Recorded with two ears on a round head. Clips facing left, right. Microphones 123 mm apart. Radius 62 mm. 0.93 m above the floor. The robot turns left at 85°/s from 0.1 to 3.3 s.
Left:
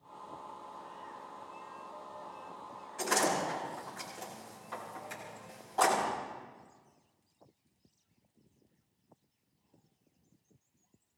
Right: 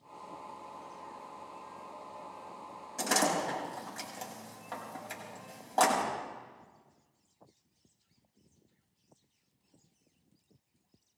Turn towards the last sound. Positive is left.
turn(degrees=-75)  # may be behind; listen again after turning